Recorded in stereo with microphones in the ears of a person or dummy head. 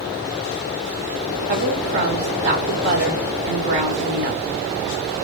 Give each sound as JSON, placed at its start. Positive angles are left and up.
{"t": 1.5, "sound": "a woman speaking", "side_deg": -45, "distance_m": 0.7}